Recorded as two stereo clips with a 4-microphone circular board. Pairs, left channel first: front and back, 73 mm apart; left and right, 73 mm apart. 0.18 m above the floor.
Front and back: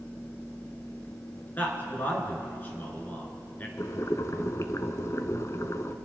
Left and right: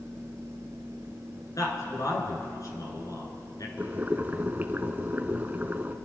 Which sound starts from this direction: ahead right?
Boiling, at 3.8 s.